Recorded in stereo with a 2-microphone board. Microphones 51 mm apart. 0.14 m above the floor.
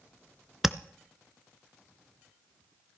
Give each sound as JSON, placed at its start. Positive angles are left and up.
{"t": 0.6, "sound": "tapping", "side_deg": -5, "distance_m": 0.6}